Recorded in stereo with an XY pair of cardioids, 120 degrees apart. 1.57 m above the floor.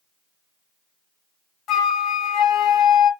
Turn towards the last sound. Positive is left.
turn(degrees=70)